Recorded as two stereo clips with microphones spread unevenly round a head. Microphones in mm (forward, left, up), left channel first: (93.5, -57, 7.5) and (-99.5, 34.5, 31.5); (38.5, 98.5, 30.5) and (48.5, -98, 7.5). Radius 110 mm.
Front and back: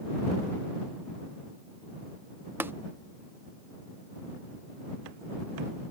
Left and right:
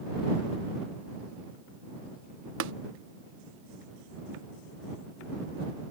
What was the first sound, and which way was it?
Tapping, 125° right.